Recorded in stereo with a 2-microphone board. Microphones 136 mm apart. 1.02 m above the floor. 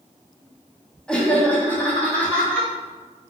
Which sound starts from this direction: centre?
Laughter, at 1.1 s.